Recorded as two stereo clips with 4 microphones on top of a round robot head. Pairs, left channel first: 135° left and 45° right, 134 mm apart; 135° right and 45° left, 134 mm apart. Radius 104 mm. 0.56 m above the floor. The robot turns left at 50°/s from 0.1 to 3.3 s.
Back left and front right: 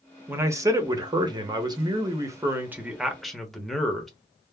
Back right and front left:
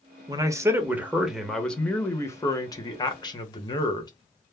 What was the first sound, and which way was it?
A man speaking, 15° left.